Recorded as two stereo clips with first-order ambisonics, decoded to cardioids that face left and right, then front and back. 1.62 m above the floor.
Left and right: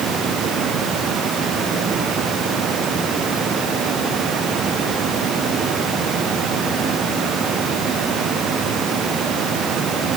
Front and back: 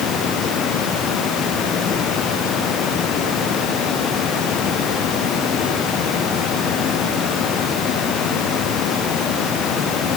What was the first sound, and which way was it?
Only background noise.